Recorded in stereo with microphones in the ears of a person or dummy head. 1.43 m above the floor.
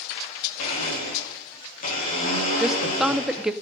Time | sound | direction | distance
0.6 | a blender | 45° left (ahead or behind) | 4 m
2.6 | a woman speaking | 5° right (ahead or behind) | 0.6 m